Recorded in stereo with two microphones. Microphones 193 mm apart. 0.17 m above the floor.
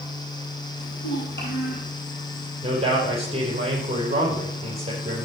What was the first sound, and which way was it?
A child speaking, 65° left (ahead or behind).